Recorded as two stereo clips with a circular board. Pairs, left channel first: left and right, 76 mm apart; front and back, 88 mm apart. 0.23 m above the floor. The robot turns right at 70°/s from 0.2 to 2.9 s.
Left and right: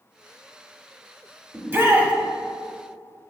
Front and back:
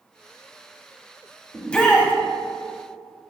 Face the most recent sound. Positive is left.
turn(degrees=15)